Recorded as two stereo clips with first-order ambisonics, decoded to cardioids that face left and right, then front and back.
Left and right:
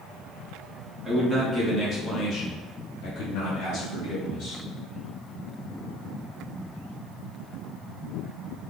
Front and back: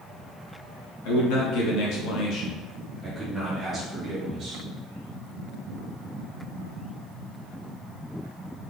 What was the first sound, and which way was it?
A man speaking, 5° right.